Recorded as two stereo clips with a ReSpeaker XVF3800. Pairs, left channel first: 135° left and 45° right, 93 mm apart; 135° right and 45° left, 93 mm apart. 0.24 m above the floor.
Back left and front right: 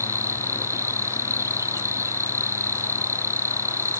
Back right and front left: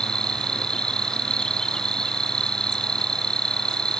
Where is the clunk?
No clunk in this recording.